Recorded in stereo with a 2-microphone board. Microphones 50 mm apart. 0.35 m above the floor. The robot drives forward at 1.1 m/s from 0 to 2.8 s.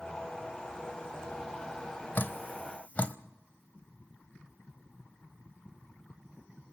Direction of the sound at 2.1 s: 45° left (ahead or behind).